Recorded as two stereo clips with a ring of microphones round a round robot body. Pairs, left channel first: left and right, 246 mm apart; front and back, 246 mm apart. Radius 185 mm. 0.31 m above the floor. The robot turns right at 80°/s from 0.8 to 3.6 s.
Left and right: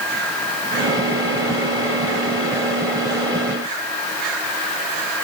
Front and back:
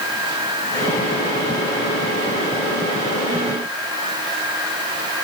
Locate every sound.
Only background noise.